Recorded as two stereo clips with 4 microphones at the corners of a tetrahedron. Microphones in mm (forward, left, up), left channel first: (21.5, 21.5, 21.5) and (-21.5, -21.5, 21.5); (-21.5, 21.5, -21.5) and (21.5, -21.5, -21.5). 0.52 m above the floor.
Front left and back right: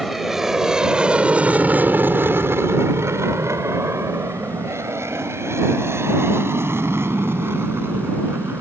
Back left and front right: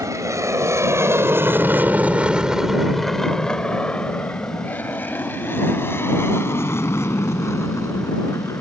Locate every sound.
0.0 s an aircraft: 50° right; by 8.6 s 175° left